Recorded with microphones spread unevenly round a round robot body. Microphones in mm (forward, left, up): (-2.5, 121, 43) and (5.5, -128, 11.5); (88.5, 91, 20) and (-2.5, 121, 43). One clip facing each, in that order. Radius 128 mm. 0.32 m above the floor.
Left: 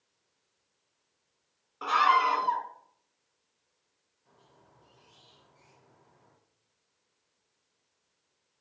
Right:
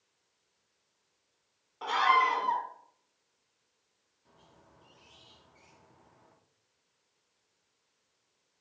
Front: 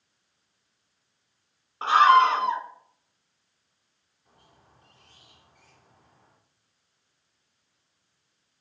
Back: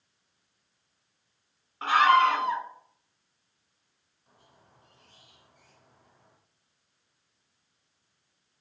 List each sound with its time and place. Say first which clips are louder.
1.8 s a scream: left 1 dB, front 3 dB; 10° left, 1.7 m
4.2 s a squeak: right 1 dB, front 1 dB; 45° right, 4.5 m